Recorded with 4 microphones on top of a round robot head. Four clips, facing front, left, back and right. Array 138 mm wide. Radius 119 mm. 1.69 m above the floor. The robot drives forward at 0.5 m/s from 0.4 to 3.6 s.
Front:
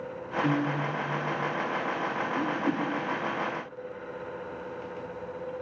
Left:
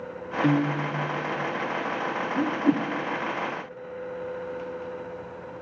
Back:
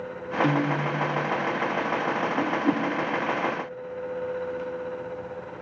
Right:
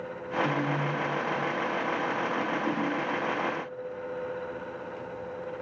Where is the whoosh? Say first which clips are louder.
Left 5 dB, back 3 dB; 95° left, 0.6 m; by 2.9 s 120° left, 0.7 m.